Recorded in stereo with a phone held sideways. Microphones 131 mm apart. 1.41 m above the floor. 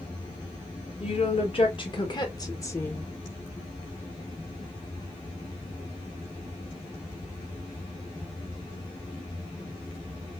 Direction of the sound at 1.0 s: 50° left (ahead or behind).